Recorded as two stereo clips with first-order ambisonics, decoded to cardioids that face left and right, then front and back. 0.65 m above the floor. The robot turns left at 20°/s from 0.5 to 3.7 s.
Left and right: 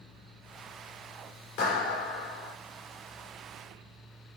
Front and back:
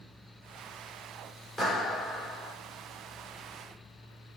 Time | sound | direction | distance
1.6 | a clap | 80° left | 2 m